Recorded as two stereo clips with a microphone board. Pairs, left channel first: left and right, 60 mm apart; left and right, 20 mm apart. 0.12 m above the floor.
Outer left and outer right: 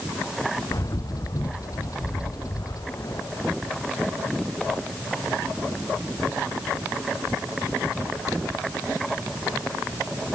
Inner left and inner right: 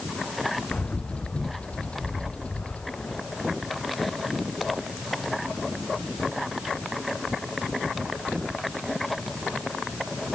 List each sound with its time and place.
0.7 s a bird: 70° left (ahead or behind)